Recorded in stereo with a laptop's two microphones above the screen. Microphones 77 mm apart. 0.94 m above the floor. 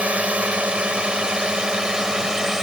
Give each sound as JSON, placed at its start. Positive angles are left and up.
{"t": 0.0, "sound": "a drone", "side_deg": -15}